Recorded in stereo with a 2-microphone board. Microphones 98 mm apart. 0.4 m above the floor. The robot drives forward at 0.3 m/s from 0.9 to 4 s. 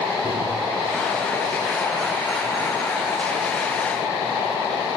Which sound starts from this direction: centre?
A microwave, at 0.2 s.